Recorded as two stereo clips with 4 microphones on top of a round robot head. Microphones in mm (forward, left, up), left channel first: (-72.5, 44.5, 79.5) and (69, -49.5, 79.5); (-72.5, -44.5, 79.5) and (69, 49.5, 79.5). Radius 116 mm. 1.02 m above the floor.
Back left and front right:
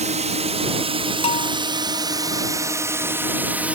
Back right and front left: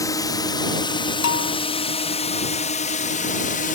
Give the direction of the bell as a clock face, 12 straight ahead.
5 o'clock.